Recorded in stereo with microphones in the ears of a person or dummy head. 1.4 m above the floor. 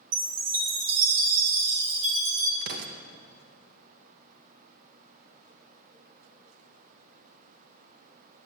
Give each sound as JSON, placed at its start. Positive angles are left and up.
{"t": 0.1, "sound": "a chime", "side_deg": -65, "distance_m": 3.0}
{"t": 2.6, "sound": "an explosion", "side_deg": -60, "distance_m": 0.8}